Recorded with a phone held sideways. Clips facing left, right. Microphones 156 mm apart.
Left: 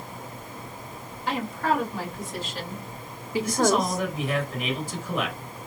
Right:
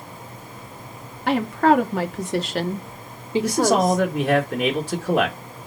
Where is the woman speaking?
70° right (ahead or behind), 2.0 m; by 4.0 s 10° left (ahead or behind), 1.0 m.